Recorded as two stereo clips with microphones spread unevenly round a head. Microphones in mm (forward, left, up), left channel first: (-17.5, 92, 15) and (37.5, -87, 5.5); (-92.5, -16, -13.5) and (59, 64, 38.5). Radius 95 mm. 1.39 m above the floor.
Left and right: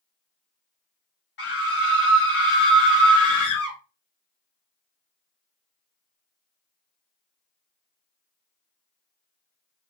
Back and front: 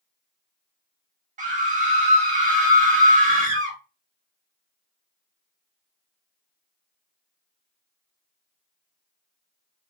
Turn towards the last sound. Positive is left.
turn(degrees=75)